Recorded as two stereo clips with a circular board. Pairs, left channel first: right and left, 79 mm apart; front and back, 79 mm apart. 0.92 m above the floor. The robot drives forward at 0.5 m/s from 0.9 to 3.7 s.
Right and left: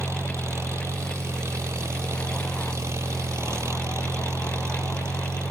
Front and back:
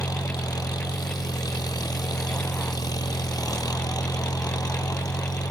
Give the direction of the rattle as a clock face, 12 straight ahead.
No rattle in this recording.